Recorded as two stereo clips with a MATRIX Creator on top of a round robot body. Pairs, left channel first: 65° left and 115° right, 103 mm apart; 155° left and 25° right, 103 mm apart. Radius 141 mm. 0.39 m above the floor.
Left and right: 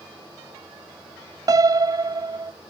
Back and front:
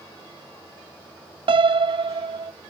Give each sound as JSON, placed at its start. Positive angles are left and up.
{"t": 1.5, "sound": "a piano", "azimuth_deg": -60}